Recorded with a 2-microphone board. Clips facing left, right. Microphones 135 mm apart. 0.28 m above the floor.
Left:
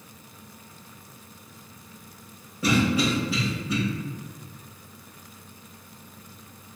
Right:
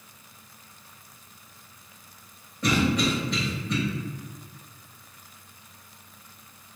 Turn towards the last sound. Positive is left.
turn(degrees=5)  # may be behind; listen again after turning